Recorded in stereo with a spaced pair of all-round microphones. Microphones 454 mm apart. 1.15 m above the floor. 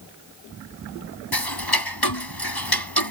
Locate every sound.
1.3 s ticking: 55° left (ahead or behind)